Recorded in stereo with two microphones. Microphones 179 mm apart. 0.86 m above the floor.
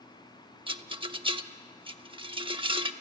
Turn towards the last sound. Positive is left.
turn(degrees=-30)  # may be behind; listen again after turning